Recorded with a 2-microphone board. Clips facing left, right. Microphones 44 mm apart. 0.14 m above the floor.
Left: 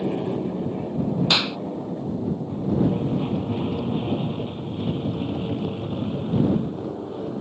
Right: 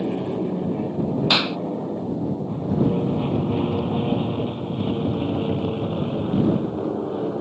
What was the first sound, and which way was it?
An aircraft, 10° right (ahead or behind).